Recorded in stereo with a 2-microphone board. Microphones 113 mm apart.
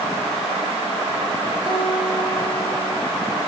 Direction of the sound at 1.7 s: 45° right (ahead or behind).